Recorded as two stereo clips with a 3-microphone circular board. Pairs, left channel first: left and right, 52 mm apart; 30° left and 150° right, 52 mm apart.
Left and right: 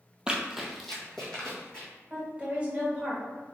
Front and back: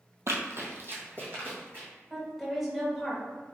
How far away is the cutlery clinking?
I don't hear cutlery clinking.